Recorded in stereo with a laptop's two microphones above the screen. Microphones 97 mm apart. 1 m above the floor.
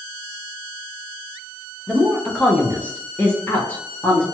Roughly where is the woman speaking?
Centre.